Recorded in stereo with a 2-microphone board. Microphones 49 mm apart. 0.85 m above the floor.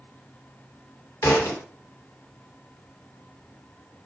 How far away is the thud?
About 1.2 m.